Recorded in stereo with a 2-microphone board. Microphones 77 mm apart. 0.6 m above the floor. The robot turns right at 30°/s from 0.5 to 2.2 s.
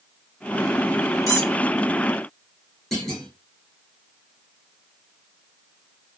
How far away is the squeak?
About 1.5 m.